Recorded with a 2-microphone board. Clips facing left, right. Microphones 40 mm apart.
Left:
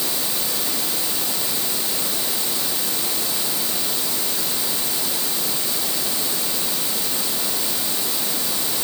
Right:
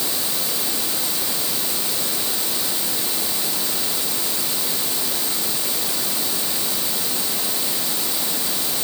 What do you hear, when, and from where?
Only background noise.